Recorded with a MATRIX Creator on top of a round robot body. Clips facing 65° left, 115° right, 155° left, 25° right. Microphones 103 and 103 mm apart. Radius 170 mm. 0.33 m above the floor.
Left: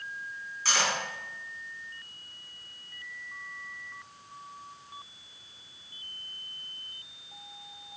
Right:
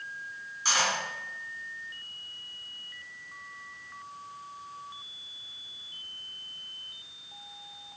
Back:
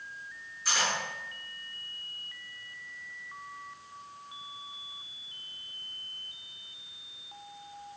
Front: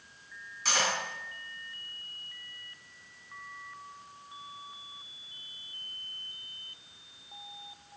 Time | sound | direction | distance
0.7 | cutlery clinking | 40° right | 3 m